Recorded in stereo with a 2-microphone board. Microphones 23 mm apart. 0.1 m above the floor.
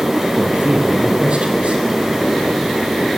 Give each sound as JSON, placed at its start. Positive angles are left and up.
{"t": 0.4, "sound": "a man speaking", "side_deg": -55, "distance_m": 3.0}